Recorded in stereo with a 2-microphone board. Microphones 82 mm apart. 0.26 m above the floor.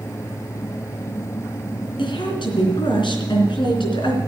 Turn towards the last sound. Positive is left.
turn(degrees=70)  # may be behind; listen again after turning